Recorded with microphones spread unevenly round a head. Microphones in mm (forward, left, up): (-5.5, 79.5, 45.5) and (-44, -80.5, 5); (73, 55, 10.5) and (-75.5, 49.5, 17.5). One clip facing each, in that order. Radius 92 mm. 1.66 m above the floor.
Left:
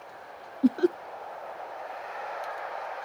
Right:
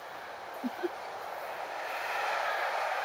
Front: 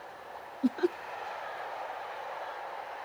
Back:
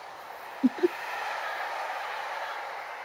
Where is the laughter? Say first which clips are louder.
Left 12 dB, back 4 dB; 110° left.